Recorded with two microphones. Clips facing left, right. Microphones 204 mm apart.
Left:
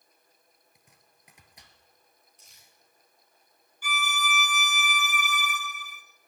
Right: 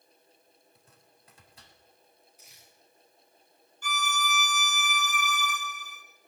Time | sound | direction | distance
0.8 | chopping | 15° left (ahead or behind) | 2 m
2.4 | crumpling | 5° right (ahead or behind) | 6 m
3.8 | a violin | 10° left (ahead or behind) | 1.1 m